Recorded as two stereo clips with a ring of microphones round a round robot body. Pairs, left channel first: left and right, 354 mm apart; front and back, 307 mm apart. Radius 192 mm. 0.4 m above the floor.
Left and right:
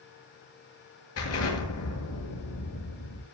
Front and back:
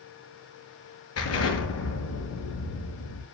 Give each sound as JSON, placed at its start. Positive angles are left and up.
{"t": 1.2, "sound": "an explosion", "azimuth_deg": 40, "distance_m": 6.5}